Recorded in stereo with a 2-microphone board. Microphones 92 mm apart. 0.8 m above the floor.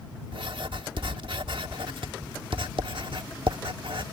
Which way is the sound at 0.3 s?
65° right (ahead or behind).